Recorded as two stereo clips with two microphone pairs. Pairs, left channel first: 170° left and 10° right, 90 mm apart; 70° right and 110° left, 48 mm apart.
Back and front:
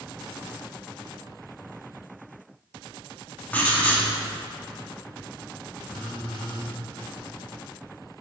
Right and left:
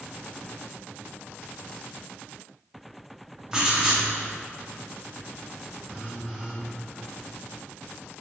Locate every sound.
3.5 s writing: 160° left, 0.7 m
5.8 s a phone buzzing: 175° left, 0.9 m